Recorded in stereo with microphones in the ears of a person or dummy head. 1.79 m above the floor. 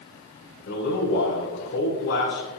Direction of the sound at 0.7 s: 60° left (ahead or behind).